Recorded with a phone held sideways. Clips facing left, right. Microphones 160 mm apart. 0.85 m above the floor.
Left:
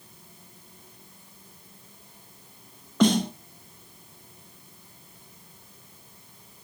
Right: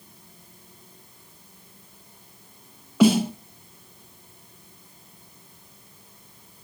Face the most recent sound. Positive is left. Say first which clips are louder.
# right 4 dB
turn(degrees=-10)  # may be behind; listen again after turning